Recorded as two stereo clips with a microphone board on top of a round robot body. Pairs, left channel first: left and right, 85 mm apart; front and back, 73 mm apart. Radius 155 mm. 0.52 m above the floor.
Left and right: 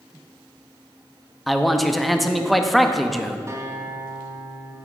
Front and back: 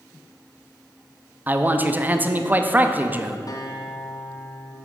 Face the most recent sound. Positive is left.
turn(degrees=-35)